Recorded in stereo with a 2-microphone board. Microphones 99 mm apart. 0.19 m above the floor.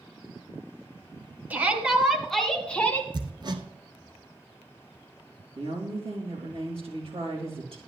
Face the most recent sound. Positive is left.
turn(degrees=-75)  # may be behind; listen again after turning